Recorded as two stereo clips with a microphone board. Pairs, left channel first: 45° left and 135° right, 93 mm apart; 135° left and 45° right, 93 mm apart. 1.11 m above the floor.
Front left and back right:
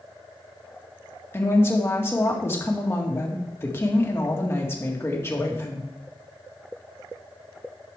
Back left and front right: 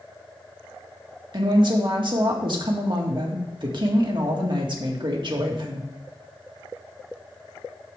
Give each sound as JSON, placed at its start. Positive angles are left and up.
{"t": 1.3, "sound": "a woman speaking", "azimuth_deg": -15, "distance_m": 1.7}